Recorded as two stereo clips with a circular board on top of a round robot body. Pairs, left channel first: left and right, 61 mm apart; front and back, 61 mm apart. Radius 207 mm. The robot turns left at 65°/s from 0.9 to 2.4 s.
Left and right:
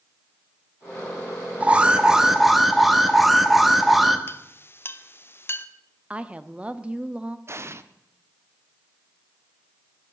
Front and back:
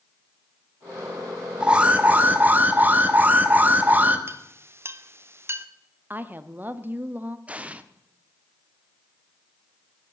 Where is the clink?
135° left, 1.0 m.